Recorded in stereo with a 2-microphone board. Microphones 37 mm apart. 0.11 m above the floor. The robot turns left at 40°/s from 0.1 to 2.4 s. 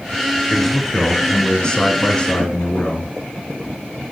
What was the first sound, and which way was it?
A man speaking, centre (ahead or behind).